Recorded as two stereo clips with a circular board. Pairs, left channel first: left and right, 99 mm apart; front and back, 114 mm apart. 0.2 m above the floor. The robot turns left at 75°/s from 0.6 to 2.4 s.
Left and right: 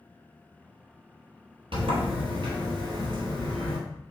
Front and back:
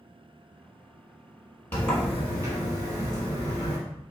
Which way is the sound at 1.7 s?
70° right.